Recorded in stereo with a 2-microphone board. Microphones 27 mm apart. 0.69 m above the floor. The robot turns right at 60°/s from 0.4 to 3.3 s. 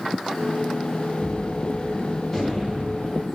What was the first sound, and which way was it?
A gunshot, 90° left.